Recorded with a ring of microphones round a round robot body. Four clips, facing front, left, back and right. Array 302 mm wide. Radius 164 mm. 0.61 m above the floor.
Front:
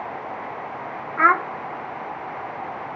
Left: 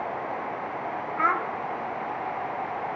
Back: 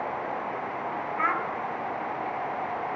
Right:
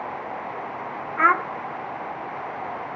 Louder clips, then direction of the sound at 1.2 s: Right 6 dB, front 11 dB; 30° right.